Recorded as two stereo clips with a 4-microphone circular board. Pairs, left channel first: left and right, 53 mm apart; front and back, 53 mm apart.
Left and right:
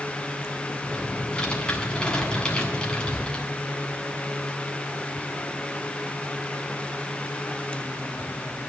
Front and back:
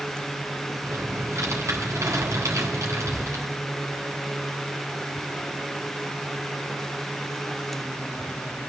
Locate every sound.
0.8 s typing on a keyboard: 165° left, 7.5 m